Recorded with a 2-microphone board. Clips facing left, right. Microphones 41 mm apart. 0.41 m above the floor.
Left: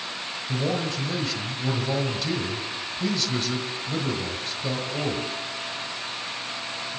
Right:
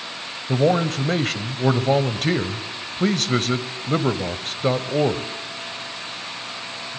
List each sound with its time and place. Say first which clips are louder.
0.5 s a man speaking: right 9 dB; 50° right (ahead or behind), 1.6 m